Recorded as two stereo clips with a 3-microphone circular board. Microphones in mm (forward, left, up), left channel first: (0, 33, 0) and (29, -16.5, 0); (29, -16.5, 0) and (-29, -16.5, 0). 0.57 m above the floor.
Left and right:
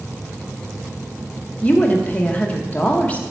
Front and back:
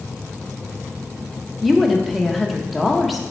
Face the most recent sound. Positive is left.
turn(degrees=85)